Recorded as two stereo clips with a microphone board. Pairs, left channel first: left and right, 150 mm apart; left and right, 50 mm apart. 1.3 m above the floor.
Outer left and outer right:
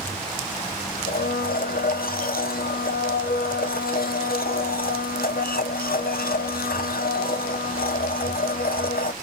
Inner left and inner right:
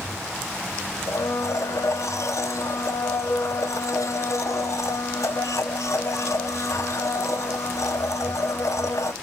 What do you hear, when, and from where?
1.1 s a blender: 80° left, 0.6 m